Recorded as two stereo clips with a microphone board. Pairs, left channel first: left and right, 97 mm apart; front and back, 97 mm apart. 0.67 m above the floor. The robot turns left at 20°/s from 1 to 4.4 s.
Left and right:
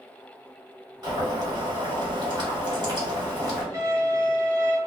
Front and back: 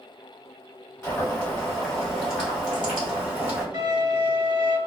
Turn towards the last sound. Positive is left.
turn(degrees=-155)